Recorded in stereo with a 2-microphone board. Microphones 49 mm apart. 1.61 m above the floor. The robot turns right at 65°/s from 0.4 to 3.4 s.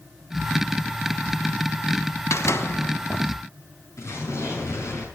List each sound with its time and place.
2.3 s a door slam: 95° left, 1.2 m; by 3.3 s 155° left, 1.2 m
4.0 s an explosion: 70° left (ahead or behind), 8 m